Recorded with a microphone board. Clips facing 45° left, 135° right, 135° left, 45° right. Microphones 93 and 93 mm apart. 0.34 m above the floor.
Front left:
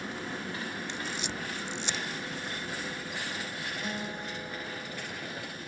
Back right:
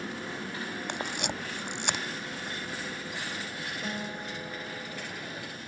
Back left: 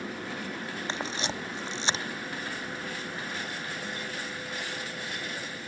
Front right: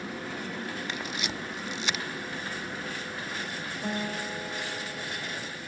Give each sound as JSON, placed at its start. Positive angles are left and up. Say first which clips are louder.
{"t": 0.9, "sound": "a camera shutter", "louder": "back right 2 dB, back left 2 dB", "azimuth_deg": -165}
{"t": 3.8, "sound": "a guitar", "louder": "back right 1 dB, front right 4 dB", "azimuth_deg": -45}